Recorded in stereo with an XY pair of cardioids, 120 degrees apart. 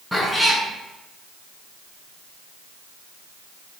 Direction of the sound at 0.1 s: 5° right.